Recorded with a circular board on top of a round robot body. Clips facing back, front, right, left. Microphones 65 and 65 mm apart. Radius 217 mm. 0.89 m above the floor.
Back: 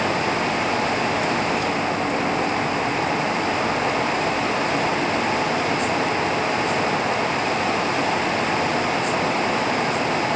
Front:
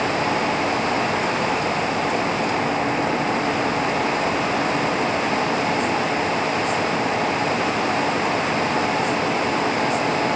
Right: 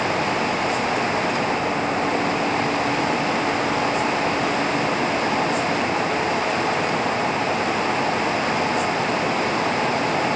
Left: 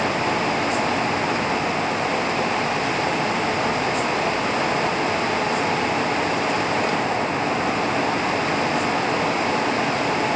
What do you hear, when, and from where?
Only background noise.